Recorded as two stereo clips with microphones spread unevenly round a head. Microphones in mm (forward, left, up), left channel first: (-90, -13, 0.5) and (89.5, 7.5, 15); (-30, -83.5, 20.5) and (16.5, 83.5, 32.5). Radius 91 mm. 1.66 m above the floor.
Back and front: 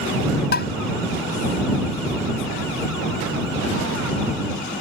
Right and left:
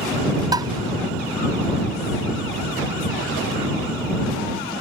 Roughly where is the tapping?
Behind left.